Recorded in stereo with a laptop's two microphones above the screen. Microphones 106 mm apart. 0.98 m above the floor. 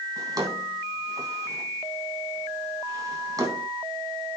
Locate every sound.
0.2 s a drawer: 35° right (ahead or behind), 3.5 m